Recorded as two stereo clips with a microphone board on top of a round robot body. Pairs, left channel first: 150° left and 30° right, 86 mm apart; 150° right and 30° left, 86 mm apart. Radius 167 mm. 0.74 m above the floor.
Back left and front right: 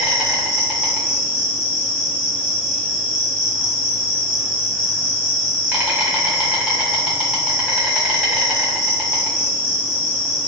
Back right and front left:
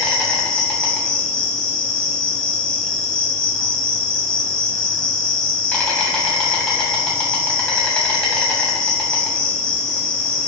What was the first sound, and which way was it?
An insect, 95° right.